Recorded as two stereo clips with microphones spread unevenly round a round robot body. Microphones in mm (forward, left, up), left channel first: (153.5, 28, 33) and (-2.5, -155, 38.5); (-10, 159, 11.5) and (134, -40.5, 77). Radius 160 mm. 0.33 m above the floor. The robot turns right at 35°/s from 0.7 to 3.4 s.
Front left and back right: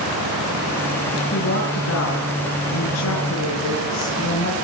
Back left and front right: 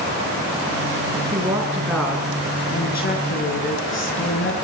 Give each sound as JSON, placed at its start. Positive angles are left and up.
{"t": 1.3, "sound": "a woman speaking", "azimuth_deg": 20, "distance_m": 5.5}